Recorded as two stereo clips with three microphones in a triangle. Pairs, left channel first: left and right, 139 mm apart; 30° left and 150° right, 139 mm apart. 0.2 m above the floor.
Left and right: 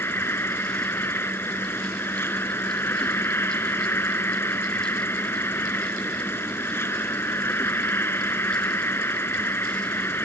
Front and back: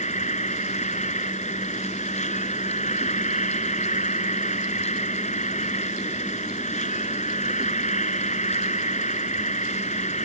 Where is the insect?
20° left.